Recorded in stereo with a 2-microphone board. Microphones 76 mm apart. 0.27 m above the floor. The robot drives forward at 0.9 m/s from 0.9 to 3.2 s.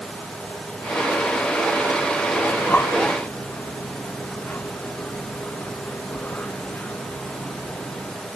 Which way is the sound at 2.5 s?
20° left (ahead or behind).